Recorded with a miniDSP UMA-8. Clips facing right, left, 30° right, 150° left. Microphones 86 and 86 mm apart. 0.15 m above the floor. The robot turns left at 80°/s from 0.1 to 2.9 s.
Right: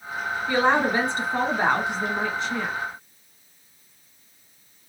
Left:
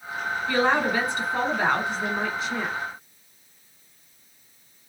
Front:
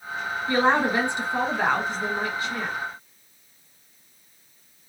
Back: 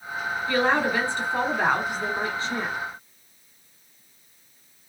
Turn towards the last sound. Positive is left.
turn(degrees=135)